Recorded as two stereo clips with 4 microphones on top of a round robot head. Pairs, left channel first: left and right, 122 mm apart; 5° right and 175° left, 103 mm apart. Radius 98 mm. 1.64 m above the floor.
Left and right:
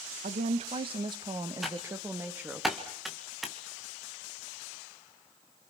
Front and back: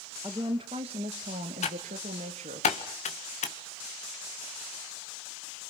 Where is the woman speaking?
115° right, 1.6 m; by 2.6 s 170° right, 2.5 m.